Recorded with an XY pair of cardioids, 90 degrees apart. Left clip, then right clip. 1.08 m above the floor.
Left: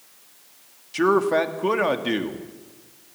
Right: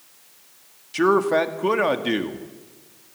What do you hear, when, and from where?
0.9 s a man speaking: 10° right, 1.7 m